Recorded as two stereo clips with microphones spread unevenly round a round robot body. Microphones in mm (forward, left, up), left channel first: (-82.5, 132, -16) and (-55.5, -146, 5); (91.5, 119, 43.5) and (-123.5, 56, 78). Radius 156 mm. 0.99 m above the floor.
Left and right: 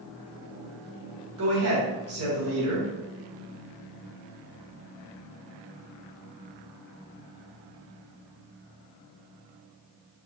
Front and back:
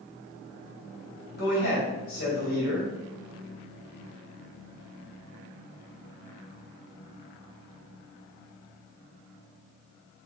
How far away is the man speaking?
About 2.5 m.